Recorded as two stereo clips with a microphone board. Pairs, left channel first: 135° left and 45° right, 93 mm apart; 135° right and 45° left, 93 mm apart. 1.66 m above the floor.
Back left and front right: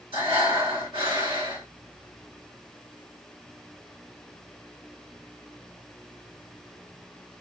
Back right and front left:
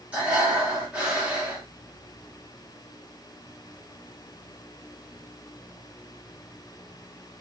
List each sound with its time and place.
0.1 s breathing: 30° right, 1.9 m